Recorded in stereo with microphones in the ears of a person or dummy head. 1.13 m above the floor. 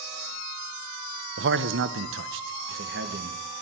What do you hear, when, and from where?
1.4 s a man speaking: 50° right (ahead or behind), 0.8 m; by 3.6 s 55° right (ahead or behind), 1.5 m